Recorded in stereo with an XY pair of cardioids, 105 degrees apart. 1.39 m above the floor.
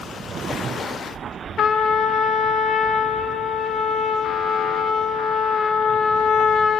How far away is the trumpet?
About 1.7 m.